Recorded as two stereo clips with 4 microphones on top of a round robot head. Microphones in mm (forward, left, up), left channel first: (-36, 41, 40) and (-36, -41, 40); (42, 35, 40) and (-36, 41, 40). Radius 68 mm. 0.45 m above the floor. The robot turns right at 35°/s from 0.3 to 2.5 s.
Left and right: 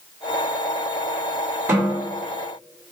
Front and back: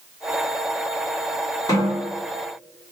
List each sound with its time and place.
1.7 s a snare drum: 30° right, 1.9 m; by 2.0 s 20° right, 1.9 m